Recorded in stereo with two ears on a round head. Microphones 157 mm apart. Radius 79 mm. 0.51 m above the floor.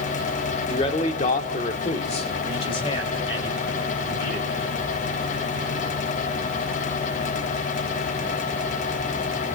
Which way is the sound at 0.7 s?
30° left (ahead or behind).